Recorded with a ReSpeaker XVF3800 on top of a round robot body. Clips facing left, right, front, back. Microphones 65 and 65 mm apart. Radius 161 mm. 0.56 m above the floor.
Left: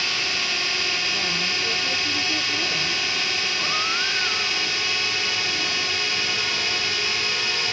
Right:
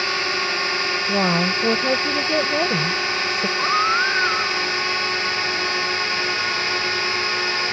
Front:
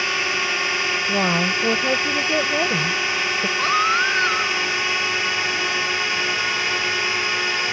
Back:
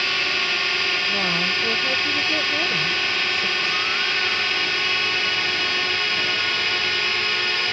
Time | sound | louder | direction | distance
0.0 | a drone | right 5 dB, front 1 dB | 70° right | ?
1.1 | a woman speaking | right 7 dB, front 3 dB | 60° right | ?
3.6 | a baby crying | right 10 dB, front 6 dB | 40° right | ?